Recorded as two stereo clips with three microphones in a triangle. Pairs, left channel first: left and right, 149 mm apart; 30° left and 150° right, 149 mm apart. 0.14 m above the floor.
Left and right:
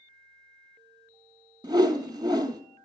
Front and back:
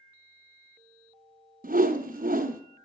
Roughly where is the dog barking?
No dog barking in this recording.